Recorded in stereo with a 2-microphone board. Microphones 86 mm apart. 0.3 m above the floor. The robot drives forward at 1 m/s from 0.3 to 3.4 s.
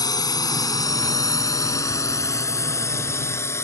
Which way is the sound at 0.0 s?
50° left (ahead or behind).